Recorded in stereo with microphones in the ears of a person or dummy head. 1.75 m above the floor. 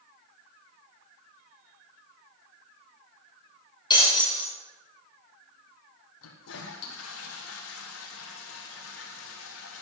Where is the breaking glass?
20° left (ahead or behind), 4.5 m.